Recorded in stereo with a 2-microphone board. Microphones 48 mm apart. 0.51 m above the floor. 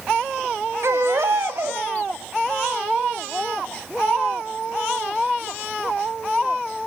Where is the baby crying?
65° right (ahead or behind), 1.1 m.